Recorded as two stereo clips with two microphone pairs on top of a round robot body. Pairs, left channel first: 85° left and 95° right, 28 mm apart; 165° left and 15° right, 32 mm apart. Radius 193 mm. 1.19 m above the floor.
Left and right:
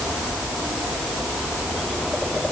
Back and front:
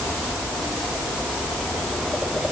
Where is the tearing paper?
No tearing paper in this recording.